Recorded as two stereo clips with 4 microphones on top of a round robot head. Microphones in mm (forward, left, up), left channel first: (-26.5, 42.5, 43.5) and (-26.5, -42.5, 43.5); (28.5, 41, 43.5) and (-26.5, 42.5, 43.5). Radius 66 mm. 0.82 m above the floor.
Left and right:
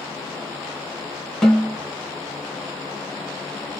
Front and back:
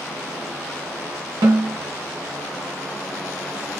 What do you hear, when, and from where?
1.4 s a snare drum: 175° left, 1.7 m